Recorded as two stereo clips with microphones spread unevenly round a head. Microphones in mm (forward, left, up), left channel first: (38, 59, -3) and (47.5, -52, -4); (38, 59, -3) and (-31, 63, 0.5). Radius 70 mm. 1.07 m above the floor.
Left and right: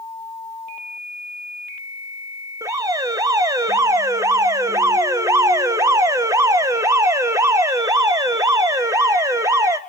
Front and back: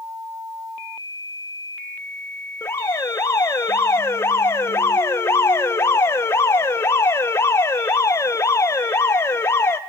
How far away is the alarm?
About 1.1 m.